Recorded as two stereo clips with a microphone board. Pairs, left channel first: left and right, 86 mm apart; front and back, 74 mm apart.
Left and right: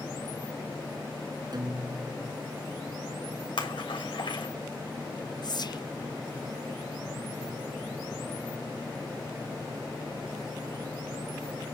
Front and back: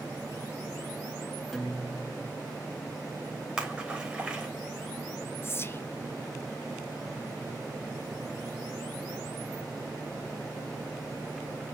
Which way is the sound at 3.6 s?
95° left.